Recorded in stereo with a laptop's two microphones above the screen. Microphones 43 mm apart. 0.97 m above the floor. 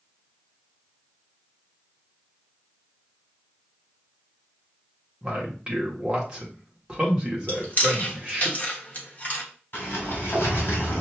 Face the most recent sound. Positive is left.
turn(degrees=50)  # may be behind; listen again after turning